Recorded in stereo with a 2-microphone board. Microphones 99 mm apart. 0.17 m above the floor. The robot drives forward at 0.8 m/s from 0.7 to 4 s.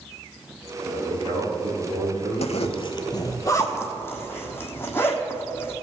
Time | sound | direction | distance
0.8 | a man speaking | 70° right (ahead or behind) | 3 m
2.4 | a zipper | 80° left | 0.5 m